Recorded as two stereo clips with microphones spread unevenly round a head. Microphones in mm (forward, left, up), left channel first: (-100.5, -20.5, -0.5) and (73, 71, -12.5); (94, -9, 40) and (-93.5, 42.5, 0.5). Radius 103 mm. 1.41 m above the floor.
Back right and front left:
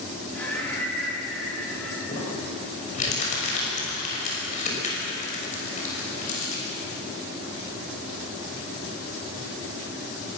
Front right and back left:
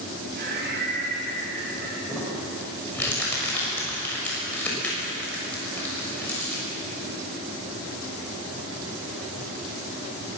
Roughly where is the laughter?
Behind left.